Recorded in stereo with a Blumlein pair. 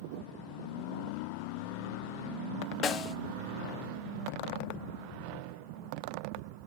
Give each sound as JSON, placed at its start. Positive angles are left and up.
{"t": 2.8, "sound": "a snare drum", "azimuth_deg": 30, "distance_m": 0.8}